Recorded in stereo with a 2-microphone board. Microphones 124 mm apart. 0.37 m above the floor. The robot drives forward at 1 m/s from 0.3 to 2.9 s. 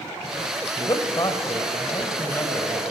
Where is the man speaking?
35° left (ahead or behind), 1.7 m; by 2.8 s 20° left (ahead or behind), 3 m.